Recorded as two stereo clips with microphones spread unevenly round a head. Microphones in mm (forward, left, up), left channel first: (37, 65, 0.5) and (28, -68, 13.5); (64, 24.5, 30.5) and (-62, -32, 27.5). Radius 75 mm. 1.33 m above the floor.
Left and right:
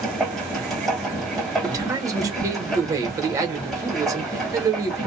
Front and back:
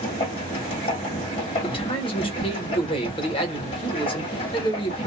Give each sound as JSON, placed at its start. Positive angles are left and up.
{"t": 0.0, "sound": "a machine running", "azimuth_deg": -10, "distance_m": 1.5}
{"t": 1.6, "sound": "a man speaking", "azimuth_deg": -30, "distance_m": 1.2}